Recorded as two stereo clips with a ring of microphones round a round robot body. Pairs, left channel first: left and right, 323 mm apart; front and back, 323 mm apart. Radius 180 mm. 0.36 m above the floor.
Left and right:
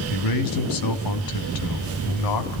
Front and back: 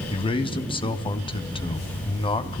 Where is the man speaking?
75° left, 3 m.